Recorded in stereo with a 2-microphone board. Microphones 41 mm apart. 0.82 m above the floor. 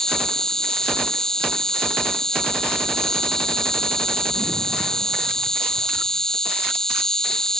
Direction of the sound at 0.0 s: 15° left (ahead or behind).